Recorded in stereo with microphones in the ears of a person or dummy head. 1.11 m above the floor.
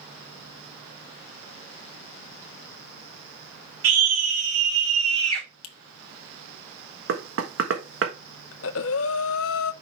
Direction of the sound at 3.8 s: 70° right (ahead or behind).